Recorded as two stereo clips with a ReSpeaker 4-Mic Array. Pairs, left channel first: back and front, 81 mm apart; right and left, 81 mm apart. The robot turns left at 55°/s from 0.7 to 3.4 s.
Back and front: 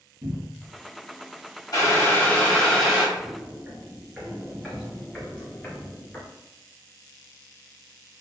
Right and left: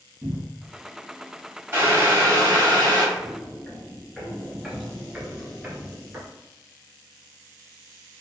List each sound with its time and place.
0.2 s a cupboard door: 30° left, 1.3 m
1.7 s boiling: 150° left, 1.3 m; by 3.0 s 80° left, 1.3 m
3.1 s footsteps: 30° right, 1.4 m; by 6.3 s 130° left, 1.6 m